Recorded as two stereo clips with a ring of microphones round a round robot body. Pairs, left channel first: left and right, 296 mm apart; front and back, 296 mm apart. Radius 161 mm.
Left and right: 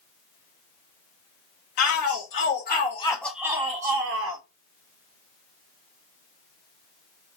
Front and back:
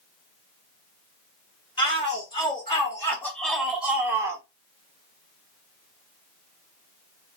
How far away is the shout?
About 1.6 m.